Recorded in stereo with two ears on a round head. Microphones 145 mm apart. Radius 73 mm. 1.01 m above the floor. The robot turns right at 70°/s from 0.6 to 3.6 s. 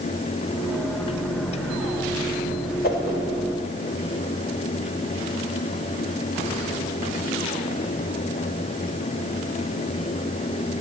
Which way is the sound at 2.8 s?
70° left (ahead or behind).